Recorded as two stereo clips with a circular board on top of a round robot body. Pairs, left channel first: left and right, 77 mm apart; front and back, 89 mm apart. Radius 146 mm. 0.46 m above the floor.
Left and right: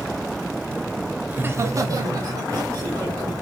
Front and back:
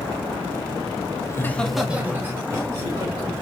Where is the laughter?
30° right, 1.0 m; by 3.3 s 130° right, 3 m.